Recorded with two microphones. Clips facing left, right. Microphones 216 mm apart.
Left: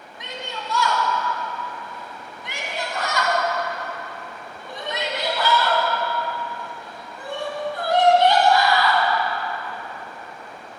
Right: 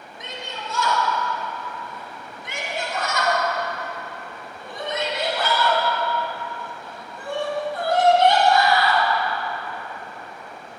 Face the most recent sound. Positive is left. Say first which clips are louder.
# left 2 dB
turn(degrees=-50)  # may be behind; listen again after turning